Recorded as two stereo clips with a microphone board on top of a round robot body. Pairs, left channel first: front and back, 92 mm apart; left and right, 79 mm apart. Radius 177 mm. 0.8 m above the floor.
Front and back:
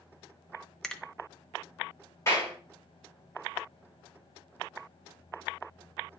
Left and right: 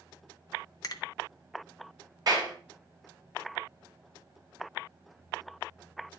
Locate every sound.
0.8 s a finger snap: 80° left, 0.9 m
2.3 s a clap: 55° right, 3.5 m